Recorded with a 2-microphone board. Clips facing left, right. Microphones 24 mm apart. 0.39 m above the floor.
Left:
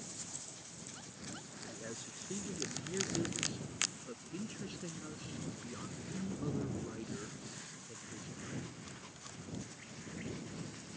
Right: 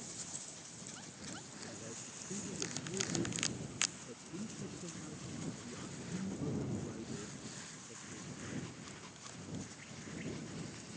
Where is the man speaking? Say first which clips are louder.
Left 5 dB; 70° left (ahead or behind); by 8.6 s 20° left (ahead or behind).